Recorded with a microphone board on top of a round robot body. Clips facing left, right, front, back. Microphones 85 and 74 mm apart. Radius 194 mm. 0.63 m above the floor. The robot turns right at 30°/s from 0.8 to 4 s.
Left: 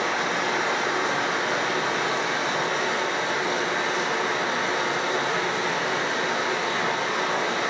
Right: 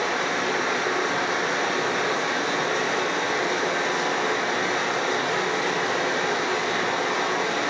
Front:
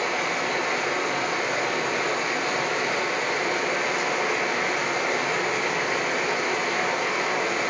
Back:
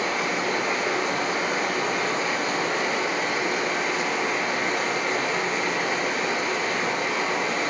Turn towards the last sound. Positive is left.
turn(degrees=-85)